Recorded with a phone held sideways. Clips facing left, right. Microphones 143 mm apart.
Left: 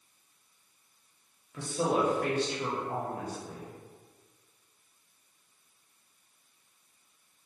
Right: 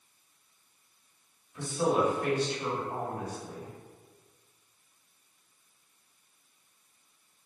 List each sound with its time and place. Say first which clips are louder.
1.5 s a woman speaking: right 1 dB; 75° left (ahead or behind), 1.1 m